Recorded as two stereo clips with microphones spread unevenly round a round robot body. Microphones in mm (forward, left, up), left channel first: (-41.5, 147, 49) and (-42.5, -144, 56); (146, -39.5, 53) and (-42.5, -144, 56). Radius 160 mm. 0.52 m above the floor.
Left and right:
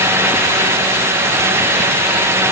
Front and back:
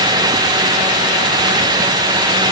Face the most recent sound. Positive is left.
No sound to turn to.